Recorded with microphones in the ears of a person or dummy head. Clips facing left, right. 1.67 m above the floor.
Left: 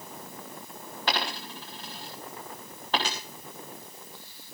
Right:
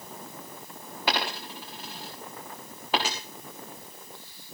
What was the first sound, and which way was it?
A dropped coin, 5° right (ahead or behind).